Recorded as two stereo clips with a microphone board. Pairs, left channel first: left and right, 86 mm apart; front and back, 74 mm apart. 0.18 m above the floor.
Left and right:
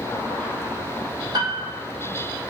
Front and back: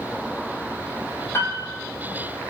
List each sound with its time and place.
1.3 s a piano: 55° right, 1.7 m